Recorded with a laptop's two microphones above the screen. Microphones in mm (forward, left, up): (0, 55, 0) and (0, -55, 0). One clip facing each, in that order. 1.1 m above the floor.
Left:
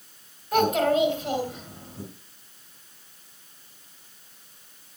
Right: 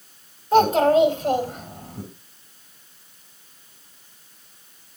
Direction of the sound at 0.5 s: 30° right (ahead or behind).